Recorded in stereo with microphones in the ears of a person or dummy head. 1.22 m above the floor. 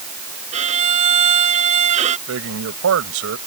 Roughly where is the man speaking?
Right.